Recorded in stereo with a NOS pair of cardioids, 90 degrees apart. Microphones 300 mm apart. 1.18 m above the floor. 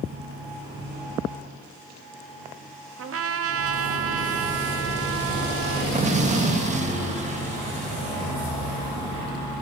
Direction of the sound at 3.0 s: 45° right.